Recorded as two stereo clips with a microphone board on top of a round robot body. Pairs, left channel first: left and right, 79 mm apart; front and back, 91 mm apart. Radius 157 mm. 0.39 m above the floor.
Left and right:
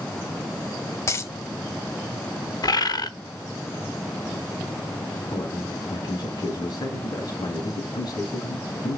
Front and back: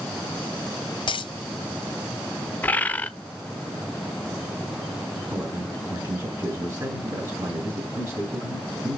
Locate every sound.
1.1 s a dropped coin: 35° left, 0.8 m
2.6 s a bird: 70° left, 1.1 m
5.3 s a man speaking: 125° left, 4 m